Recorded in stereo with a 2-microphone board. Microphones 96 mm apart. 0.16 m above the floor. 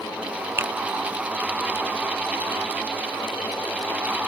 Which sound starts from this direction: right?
A finger snap, at 0.6 s.